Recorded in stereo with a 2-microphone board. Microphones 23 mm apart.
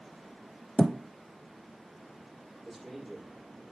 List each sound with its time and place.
0.8 s a thud: 55° left (ahead or behind), 0.8 m
2.6 s a man speaking: 10° left (ahead or behind), 6 m